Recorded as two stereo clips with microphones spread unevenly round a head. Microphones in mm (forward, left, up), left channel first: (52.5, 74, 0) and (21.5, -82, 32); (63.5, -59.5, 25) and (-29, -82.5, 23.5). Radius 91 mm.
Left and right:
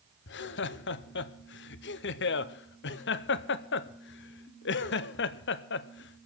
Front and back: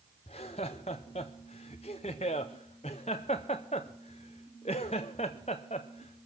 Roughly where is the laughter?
Ahead left.